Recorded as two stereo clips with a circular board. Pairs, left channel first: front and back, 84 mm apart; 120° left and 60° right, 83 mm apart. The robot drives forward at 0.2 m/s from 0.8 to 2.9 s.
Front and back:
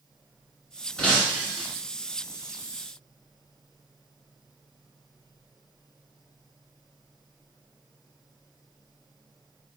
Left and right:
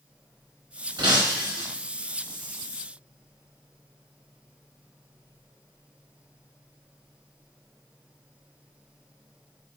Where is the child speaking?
I don't hear a child speaking.